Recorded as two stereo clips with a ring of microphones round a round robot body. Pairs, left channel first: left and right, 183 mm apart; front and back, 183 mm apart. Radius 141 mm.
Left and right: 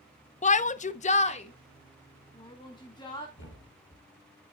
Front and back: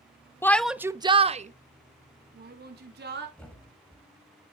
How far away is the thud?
About 6 m.